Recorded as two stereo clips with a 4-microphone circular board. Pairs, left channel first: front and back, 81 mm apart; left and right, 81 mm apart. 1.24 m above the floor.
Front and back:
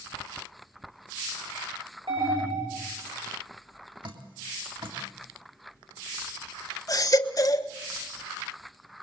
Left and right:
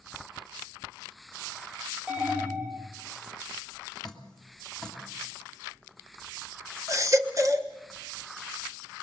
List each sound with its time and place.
2.1 s an alarm: 165° right, 4 m
4.0 s dripping: 175° left, 3 m
6.9 s a baby crying: 40° right, 1.3 m